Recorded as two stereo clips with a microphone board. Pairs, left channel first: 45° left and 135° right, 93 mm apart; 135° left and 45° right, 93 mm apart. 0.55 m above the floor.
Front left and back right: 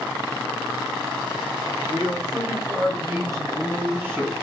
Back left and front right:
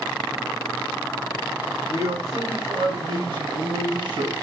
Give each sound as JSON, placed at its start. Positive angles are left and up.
{"t": 1.9, "sound": "a man speaking", "azimuth_deg": -100, "distance_m": 3.0}